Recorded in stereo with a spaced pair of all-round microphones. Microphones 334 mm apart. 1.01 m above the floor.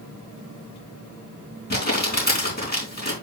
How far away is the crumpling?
About 3.5 m.